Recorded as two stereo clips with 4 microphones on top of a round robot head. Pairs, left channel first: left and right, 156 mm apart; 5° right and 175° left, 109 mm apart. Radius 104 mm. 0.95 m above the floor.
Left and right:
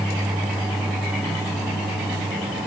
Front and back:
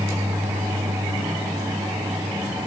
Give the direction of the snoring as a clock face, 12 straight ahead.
No snoring in this recording.